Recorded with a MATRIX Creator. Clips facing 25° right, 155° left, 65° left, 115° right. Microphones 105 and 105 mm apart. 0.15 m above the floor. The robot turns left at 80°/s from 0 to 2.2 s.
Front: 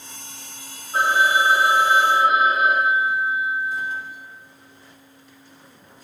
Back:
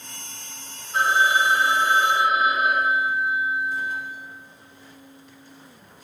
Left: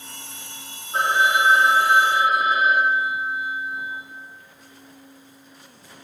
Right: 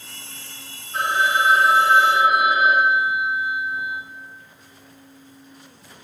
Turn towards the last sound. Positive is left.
turn(degrees=-80)